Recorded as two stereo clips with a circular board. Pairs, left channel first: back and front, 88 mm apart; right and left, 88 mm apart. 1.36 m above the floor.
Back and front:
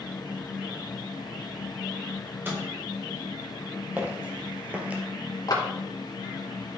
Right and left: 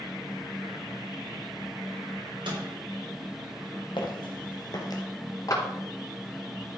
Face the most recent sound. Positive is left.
turn(degrees=-140)